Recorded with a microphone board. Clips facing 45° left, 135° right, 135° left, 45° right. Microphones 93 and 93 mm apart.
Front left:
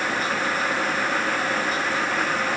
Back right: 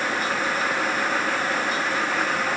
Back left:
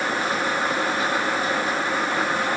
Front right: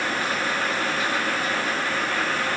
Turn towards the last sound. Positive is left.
No sound to turn to.